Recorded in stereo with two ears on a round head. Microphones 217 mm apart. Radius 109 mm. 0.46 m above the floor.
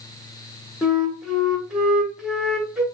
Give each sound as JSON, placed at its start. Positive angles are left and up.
{"t": 0.8, "sound": "a flute", "side_deg": -5, "distance_m": 1.3}